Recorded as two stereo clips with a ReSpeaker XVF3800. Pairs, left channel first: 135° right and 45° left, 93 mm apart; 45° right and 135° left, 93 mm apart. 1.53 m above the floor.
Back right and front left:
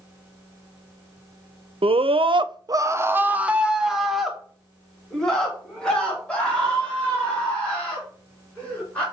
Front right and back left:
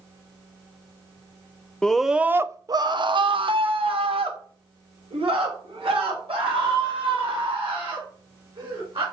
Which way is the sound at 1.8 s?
35° left.